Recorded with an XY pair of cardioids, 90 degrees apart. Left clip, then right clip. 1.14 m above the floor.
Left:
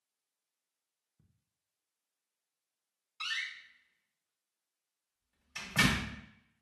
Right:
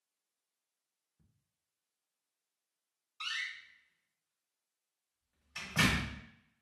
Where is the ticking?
30° left, 0.9 m.